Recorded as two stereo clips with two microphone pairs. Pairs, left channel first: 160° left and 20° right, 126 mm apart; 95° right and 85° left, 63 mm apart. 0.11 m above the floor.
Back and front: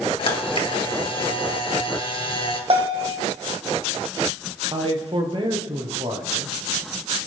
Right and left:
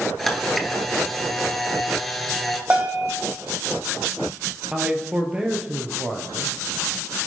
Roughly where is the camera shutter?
Behind.